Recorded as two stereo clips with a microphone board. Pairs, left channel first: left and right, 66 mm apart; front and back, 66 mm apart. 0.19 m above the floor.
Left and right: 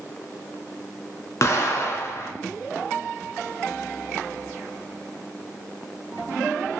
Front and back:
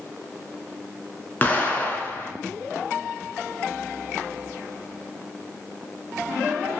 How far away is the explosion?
About 0.5 m.